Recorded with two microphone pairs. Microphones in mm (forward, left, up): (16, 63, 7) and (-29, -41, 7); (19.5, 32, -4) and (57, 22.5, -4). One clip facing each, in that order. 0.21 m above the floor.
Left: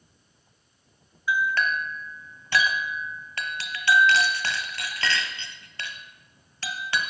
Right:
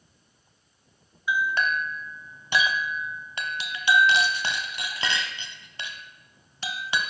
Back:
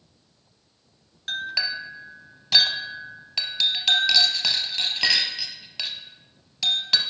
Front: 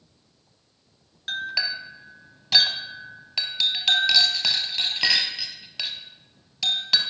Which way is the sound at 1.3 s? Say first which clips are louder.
Even, even; 90° right.